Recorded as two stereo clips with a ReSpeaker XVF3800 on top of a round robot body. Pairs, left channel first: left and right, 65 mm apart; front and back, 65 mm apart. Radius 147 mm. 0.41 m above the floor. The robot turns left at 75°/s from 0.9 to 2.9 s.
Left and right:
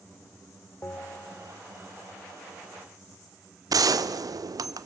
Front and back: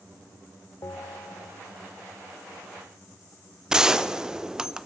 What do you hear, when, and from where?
0.8 s a bell: 35° left, 1.3 m; by 1.6 s 15° right, 1.3 m
3.7 s a gunshot: 100° right, 0.7 m